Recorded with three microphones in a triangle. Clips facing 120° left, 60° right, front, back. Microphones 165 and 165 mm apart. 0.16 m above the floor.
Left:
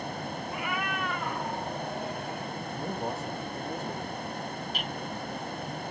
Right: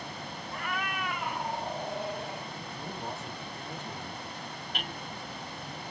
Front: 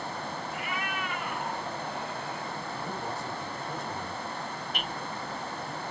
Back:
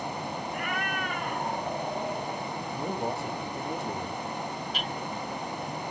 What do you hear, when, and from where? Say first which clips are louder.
0.5 s a cat meowing: left 1 dB, back 2 dB; 160° right, 0.5 m; by 2.5 s 130° right, 1.5 m
2.7 s a man speaking: left 6 dB, back 7 dB; 165° left, 5 m
4.7 s hammering: left 3 dB, back 2 dB; 30° right, 3 m